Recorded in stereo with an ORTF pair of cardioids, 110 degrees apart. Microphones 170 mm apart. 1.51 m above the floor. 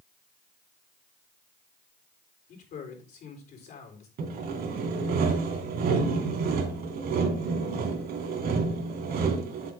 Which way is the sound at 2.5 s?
65° left.